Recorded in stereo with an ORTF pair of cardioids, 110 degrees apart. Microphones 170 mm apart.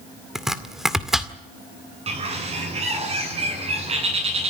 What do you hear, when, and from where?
0.3 s chopping: straight ahead, 2.0 m
2.1 s a bird: 35° right, 9.5 m